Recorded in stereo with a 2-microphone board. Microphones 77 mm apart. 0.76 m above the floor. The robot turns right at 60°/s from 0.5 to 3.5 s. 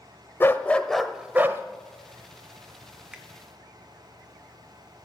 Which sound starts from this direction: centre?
A finger snap, at 3.1 s.